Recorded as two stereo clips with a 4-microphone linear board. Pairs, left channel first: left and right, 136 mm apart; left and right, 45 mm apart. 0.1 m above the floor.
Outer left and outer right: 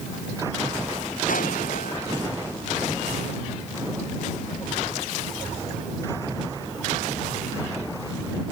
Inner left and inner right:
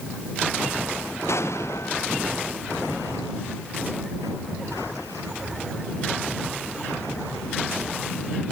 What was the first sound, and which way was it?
An explosion, 80° left.